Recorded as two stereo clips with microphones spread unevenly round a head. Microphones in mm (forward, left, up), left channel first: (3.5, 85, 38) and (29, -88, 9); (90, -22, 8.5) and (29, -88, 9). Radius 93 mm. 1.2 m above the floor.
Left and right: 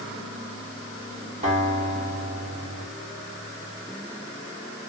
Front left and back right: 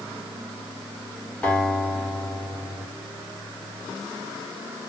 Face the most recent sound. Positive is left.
turn(degrees=-30)